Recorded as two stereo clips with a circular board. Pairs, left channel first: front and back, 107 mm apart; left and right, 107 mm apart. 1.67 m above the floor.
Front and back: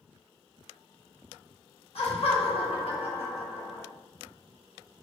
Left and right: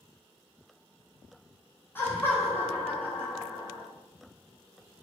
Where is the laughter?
20° left, 1.5 m.